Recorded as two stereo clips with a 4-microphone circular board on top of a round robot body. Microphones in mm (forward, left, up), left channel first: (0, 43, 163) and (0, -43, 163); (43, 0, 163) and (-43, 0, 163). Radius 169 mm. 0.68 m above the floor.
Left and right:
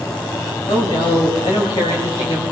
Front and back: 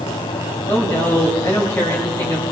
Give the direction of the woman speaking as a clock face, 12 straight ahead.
10 o'clock.